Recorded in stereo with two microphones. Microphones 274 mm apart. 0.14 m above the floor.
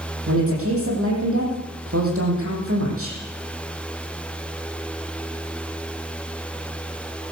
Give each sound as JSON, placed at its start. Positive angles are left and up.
{"t": 0.3, "sound": "a woman speaking", "side_deg": -55, "distance_m": 7.0}